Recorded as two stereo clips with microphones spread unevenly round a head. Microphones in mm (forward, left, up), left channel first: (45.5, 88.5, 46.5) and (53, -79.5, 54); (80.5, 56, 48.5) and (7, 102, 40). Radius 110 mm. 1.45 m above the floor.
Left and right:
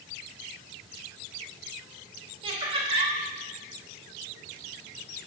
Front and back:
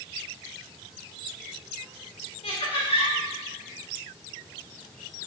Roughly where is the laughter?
Ahead right.